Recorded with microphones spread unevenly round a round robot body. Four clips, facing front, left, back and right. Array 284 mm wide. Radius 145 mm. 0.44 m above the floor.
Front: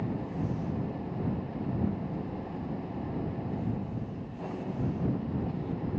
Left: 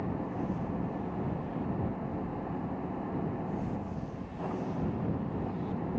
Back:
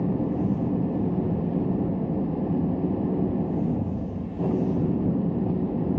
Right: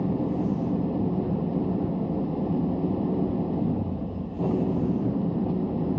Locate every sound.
0.0 s an engine running: 140° right